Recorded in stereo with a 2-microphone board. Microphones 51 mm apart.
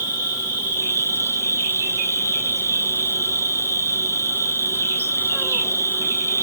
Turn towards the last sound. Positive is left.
turn(degrees=-60)  # may be behind; listen again after turning